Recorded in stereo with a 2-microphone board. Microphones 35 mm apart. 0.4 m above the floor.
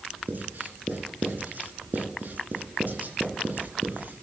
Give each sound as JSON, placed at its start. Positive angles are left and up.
{"t": 0.3, "sound": "writing", "side_deg": -55, "distance_m": 3.0}